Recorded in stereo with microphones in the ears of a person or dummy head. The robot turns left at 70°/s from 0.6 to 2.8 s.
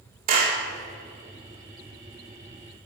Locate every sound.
0.3 s a clap: 40° right (ahead or behind), 2.5 m